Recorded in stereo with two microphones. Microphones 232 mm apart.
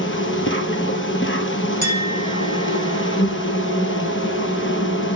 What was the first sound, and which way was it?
An insect, 55° left (ahead or behind).